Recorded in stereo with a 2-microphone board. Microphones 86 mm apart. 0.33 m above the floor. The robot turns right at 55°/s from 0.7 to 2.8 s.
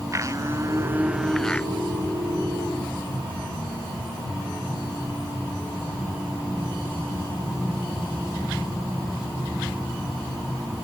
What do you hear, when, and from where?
0.1 s a blender: 35° right; by 1.7 s 20° left